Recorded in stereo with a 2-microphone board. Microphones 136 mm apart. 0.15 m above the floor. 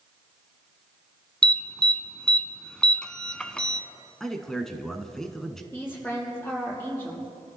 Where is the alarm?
5° left (ahead or behind), 0.9 m.